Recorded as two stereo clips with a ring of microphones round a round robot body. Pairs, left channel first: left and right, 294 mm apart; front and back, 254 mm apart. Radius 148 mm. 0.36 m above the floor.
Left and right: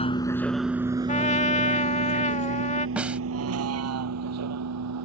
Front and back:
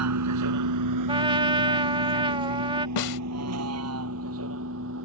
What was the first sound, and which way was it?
A vehicle, 160° left.